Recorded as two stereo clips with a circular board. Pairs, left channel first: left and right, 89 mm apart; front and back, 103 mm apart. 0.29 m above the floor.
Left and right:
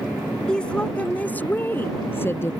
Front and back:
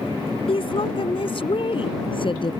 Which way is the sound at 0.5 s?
10° left.